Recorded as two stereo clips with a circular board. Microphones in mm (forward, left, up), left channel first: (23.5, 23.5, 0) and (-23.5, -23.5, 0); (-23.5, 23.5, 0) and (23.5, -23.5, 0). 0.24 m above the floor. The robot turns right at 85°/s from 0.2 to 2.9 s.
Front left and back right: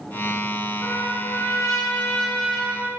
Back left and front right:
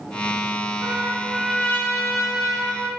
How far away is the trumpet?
About 1.6 m.